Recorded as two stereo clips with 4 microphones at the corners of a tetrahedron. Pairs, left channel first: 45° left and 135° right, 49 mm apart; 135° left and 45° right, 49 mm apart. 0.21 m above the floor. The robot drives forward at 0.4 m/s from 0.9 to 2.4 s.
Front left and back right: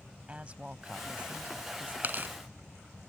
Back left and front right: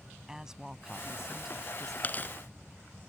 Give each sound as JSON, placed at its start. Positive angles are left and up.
{"t": 0.3, "sound": "a woman speaking", "azimuth_deg": -110}
{"t": 2.0, "sound": "tearing paper", "azimuth_deg": -175}